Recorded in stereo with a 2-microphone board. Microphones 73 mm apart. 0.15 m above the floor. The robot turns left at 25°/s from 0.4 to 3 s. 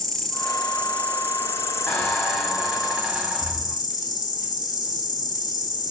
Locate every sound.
0.0 s an insect: 175° left, 1.0 m; by 5.9 s 110° left, 1.0 m
1.9 s a squeak: 25° left (ahead or behind), 1.5 m; by 3.8 s 5° right (ahead or behind), 1.5 m